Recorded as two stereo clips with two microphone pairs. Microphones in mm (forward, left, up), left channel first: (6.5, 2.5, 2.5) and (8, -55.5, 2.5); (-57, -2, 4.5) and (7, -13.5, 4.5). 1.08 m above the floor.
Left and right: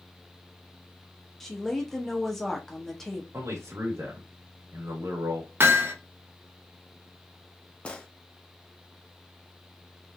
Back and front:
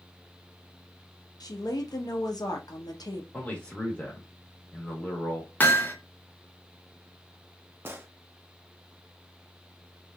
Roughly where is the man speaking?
Behind right.